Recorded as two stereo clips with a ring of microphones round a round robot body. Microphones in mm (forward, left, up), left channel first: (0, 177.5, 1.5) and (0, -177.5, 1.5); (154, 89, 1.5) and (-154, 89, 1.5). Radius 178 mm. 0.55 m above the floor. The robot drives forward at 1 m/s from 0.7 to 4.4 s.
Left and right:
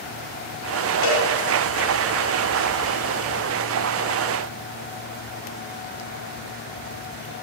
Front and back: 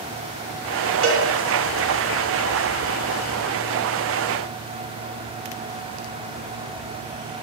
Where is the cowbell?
130° left, 5 m; by 1.3 s 135° left, 5 m.